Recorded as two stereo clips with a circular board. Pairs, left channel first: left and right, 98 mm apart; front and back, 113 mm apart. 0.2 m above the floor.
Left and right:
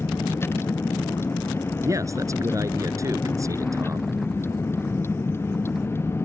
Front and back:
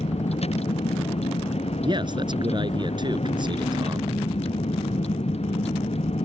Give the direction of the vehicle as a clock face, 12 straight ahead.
11 o'clock.